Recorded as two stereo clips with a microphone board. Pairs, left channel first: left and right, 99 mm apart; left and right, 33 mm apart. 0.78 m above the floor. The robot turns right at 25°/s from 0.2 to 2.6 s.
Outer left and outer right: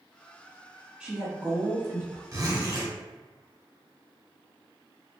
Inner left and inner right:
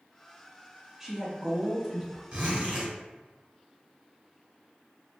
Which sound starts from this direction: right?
A zipper, at 2.3 s.